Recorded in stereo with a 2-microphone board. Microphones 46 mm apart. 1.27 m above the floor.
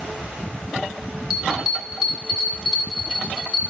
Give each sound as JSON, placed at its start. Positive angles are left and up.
{"t": 1.3, "sound": "a bell", "side_deg": -10, "distance_m": 7.0}